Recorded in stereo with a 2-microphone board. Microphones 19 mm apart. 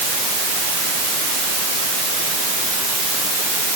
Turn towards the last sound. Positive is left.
No sound to turn to.